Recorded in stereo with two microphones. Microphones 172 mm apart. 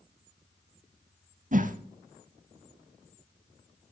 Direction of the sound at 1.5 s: 50° right (ahead or behind).